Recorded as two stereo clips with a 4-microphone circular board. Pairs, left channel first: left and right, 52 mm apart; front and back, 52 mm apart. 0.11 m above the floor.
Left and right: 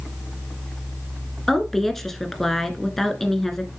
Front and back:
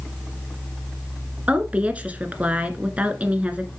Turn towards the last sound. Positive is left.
turn(degrees=165)